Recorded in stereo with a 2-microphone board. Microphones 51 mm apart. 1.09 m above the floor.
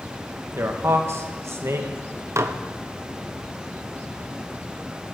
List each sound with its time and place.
0.6 s a man speaking: 60° right (ahead or behind), 1.3 m
2.4 s dishes clattering: 65° right (ahead or behind), 0.6 m